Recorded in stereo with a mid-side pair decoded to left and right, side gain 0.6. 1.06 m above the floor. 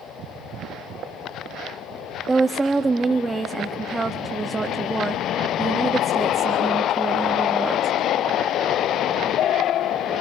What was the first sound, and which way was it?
A woman speaking, 20° right.